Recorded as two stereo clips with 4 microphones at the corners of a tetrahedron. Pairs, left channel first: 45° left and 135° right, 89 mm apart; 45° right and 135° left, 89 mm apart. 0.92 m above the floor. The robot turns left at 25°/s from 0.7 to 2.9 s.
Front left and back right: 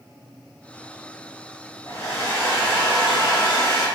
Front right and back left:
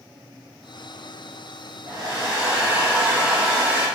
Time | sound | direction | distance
1.9 | a hair dryer | 100° left | 1.4 m